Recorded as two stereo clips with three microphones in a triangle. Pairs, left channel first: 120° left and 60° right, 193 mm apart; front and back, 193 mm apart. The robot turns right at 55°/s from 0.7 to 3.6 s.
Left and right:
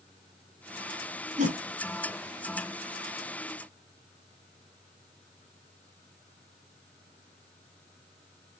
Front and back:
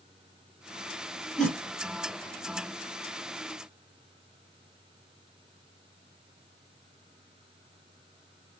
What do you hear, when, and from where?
1.4 s a whoosh: 90° right, 0.8 m; by 1.6 s 75° right, 0.8 m